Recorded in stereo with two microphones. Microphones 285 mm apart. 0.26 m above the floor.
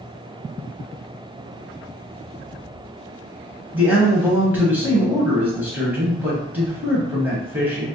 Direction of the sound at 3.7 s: 5° right (ahead or behind).